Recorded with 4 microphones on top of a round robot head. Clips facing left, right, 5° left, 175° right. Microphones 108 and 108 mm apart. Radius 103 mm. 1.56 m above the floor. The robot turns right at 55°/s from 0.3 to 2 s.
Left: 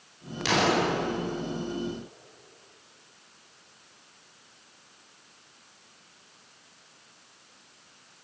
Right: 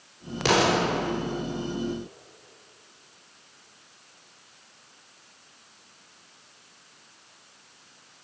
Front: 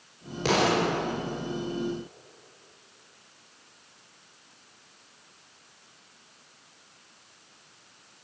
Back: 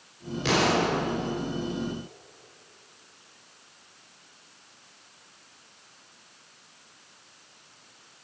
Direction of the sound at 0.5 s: 50° right.